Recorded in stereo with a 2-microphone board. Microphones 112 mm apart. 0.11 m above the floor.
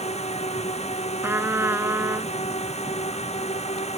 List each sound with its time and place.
0.0 s a drone: 75° left (ahead or behind)
1.2 s a trumpet: 20° right (ahead or behind)